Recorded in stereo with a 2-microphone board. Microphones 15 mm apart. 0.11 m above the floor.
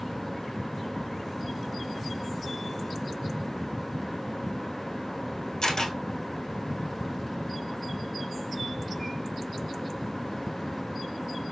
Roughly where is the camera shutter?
Left.